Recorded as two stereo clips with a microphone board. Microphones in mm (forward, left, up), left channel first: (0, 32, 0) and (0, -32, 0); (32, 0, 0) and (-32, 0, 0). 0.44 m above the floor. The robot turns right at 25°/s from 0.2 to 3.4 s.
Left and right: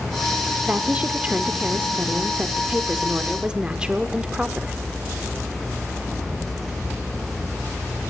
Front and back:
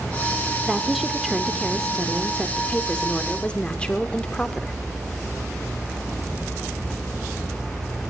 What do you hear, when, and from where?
0.7 s a woman speaking: 105° right, 0.7 m; by 4.7 s 40° right, 0.7 m